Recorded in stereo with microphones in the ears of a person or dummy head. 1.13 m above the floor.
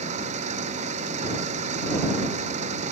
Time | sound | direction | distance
0.0 | an engine running | 45° right (ahead or behind) | ?